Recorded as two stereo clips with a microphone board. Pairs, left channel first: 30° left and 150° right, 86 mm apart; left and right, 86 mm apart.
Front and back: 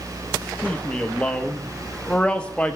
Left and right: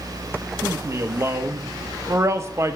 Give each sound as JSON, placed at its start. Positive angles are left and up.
{"t": 0.6, "sound": "a man speaking", "azimuth_deg": -45, "distance_m": 0.9}